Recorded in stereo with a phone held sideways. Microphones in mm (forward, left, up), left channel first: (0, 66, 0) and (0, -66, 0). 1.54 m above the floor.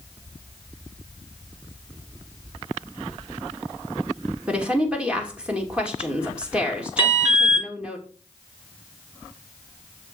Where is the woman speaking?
10° right (ahead or behind), 2.5 m.